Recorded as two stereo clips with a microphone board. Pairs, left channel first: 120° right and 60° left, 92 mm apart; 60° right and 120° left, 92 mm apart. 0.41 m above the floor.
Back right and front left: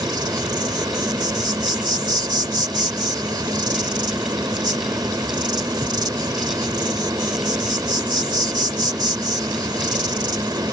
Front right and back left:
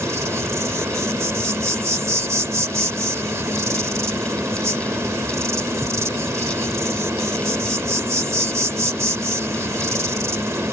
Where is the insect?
70° left.